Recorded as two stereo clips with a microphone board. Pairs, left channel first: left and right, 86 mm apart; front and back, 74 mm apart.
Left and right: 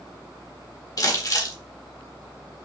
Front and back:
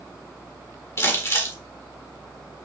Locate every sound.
1.0 s crumpling: 50° left, 1.7 m